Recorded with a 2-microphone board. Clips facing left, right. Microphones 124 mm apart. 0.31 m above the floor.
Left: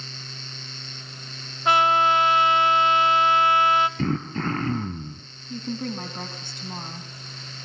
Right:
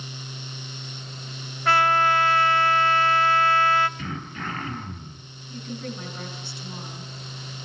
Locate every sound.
1.6 s a trumpet: 20° left (ahead or behind), 0.8 m
4.0 s throat clearing: 50° left (ahead or behind), 3 m
5.5 s a woman speaking: 45° left (ahead or behind), 2.5 m